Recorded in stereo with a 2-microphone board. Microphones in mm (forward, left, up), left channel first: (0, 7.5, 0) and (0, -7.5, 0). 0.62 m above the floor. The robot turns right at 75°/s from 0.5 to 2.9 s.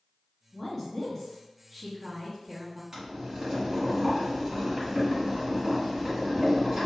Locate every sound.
0.5 s a woman speaking: 20° left (ahead or behind), 1.0 m; by 2.8 s 20° right (ahead or behind), 1.0 m
2.9 s boiling: 40° right (ahead or behind), 1.7 m